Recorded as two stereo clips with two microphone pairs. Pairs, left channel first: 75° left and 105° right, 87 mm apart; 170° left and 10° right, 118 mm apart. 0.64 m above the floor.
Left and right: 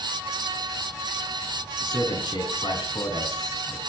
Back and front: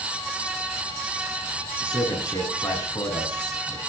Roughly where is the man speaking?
Behind left.